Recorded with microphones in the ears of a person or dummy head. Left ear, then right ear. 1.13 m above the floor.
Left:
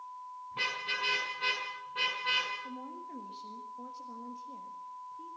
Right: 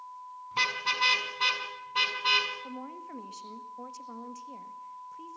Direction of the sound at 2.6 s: 50° right (ahead or behind).